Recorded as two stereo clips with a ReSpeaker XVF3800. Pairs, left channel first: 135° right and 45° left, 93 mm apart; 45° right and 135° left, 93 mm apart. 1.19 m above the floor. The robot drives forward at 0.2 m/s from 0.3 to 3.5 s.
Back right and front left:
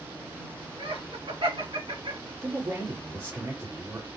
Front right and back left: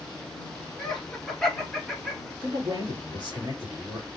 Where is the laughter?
40° left, 1.7 m; by 2.3 s 45° left, 1.5 m.